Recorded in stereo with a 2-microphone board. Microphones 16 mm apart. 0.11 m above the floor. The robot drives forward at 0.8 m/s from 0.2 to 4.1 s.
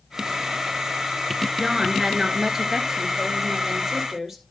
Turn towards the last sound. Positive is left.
turn(degrees=-15)  # may be behind; listen again after turning